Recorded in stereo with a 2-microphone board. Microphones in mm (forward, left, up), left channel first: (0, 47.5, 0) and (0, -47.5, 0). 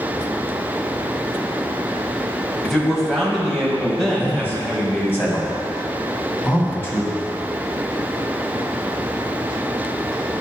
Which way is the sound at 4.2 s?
25° left (ahead or behind).